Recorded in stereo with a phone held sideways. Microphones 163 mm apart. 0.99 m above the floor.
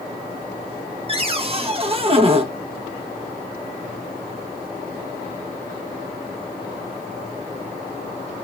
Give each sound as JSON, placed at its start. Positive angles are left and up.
{"t": 1.1, "sound": "a cupboard door", "side_deg": -35, "distance_m": 0.6}